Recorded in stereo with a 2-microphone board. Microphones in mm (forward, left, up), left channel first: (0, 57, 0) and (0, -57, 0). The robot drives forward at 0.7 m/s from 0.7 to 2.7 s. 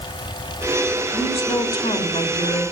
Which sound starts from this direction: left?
A woman speaking, at 1.1 s.